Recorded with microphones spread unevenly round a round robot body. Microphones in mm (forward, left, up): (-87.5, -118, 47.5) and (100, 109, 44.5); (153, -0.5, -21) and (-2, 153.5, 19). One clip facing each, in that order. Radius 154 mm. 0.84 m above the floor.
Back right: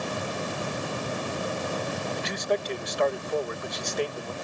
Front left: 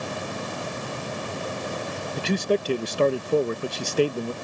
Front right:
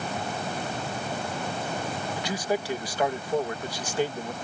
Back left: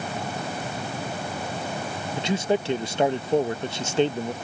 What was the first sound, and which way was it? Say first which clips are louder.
A man speaking: front left 8 dB, back left 6 dB; 70° left.